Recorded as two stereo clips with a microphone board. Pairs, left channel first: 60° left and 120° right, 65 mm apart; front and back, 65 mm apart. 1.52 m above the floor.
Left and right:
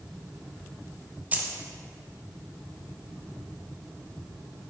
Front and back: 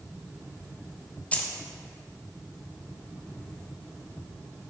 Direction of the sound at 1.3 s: 65° right.